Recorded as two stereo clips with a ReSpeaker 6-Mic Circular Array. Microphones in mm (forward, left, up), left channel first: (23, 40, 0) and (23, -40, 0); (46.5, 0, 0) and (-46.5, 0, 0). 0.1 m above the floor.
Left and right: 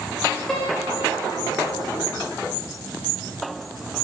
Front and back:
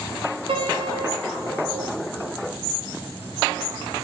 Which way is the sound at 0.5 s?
175° left.